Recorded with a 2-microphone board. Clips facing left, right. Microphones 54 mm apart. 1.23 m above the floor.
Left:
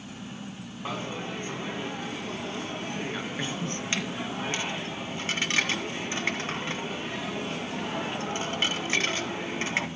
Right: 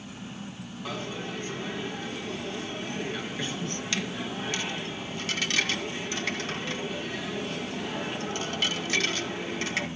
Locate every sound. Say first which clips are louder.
0.8 s a dropped coin: left 1 dB; 25° left (ahead or behind), 2 m